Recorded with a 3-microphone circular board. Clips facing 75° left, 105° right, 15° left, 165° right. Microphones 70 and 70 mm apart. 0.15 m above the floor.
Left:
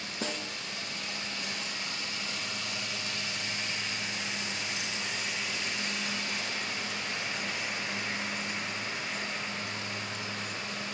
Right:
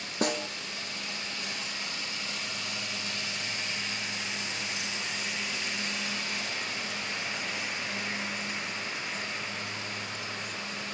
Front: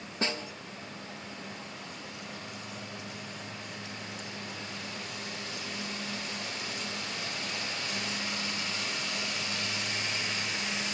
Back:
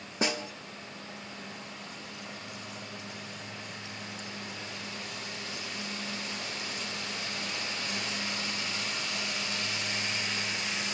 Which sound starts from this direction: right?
A snare drum, at 0.2 s.